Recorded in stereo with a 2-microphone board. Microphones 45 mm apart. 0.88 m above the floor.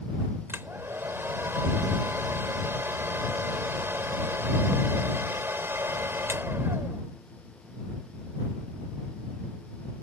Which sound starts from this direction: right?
A hair dryer, at 0.5 s.